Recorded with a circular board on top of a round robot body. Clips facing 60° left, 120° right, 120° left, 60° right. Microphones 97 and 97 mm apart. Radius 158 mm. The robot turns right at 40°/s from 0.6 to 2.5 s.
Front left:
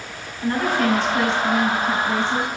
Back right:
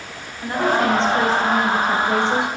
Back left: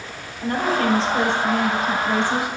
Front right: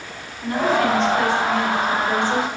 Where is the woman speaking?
160° left, 2.5 m; by 2.5 s 125° right, 2.5 m.